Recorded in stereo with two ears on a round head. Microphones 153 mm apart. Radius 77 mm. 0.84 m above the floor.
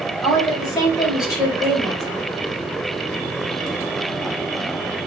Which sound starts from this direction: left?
A woman speaking, at 0.2 s.